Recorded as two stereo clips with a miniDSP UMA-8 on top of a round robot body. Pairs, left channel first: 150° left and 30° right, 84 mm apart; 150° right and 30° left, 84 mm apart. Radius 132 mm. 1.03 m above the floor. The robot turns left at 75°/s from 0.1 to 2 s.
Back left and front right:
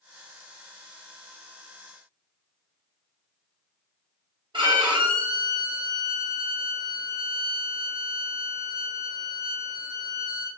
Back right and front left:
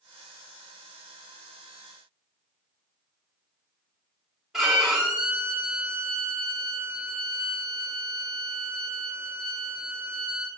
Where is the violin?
55° right, 1.1 m.